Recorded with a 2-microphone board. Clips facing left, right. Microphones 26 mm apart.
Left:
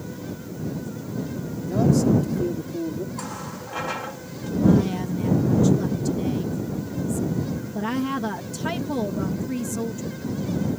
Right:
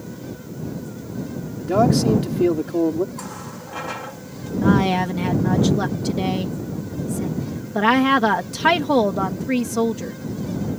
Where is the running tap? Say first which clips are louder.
Even; centre (ahead or behind).